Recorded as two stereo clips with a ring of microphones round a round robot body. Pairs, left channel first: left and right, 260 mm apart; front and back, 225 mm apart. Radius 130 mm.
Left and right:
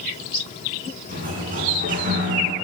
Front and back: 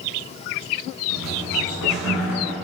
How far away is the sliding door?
About 5.5 m.